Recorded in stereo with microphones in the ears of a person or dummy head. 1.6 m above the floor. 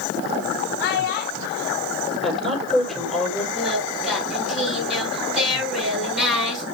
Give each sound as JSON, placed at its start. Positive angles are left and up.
{"t": 0.8, "sound": "a child speaking", "side_deg": 50, "distance_m": 0.7}
{"t": 2.2, "sound": "a woman speaking", "side_deg": 0, "distance_m": 6.0}
{"t": 3.5, "sound": "singing", "side_deg": 0, "distance_m": 5.5}